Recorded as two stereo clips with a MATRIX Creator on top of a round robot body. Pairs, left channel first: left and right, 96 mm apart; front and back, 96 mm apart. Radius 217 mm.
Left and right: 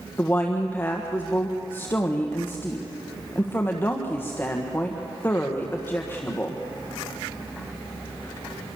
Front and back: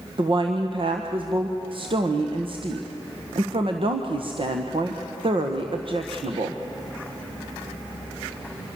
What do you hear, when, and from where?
0.2 s a woman speaking: 155° left, 1.6 m